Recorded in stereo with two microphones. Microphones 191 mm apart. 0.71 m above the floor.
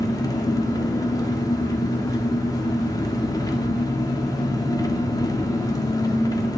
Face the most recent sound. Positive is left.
turn(degrees=20)  # may be behind; listen again after turning